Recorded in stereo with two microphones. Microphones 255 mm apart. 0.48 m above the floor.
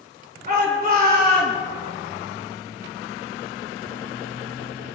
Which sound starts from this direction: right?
A shout, at 0.5 s.